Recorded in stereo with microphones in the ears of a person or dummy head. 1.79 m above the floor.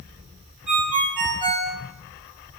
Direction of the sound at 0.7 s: 40° right (ahead or behind).